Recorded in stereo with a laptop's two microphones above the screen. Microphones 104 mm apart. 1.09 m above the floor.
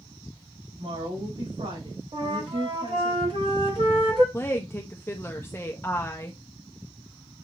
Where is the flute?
60° right (ahead or behind), 1.7 m.